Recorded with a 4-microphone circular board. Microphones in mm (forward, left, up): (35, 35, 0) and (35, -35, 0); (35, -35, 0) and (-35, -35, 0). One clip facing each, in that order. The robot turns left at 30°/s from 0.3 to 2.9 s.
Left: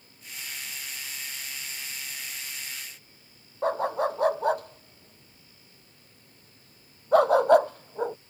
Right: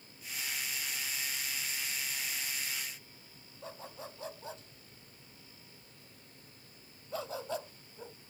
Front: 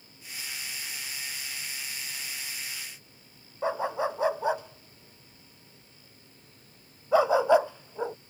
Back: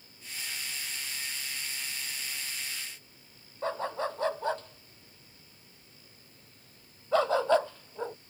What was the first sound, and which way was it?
A dog barking, 75° left.